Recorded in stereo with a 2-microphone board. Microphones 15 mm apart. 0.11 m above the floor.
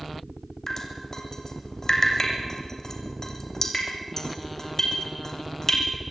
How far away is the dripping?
About 3 m.